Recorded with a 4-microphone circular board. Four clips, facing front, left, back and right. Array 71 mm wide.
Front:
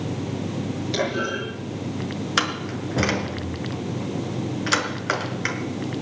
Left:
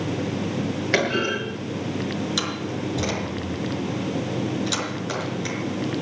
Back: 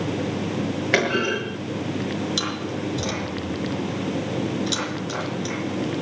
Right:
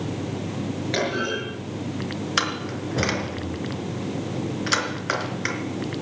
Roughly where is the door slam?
Ahead right.